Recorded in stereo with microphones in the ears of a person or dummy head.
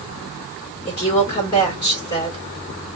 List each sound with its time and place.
0.9 s a woman speaking: 25° left (ahead or behind), 2.5 m